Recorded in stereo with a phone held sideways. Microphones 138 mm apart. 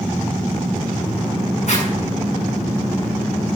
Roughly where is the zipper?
Left.